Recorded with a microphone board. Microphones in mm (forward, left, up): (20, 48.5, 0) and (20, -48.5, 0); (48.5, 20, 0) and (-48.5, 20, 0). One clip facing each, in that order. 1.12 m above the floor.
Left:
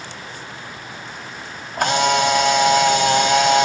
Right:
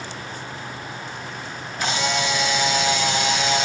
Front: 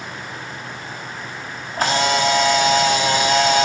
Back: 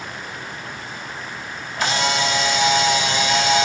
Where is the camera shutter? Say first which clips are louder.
Left 7 dB, front 3 dB; 50° left, 2.5 m.